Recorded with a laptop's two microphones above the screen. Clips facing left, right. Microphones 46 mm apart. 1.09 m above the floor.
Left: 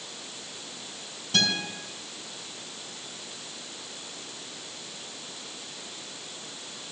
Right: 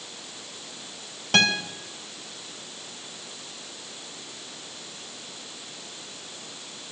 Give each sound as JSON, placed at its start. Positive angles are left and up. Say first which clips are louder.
{"t": 1.3, "sound": "a guitar", "louder": "right 5 dB", "side_deg": -55, "distance_m": 3.5}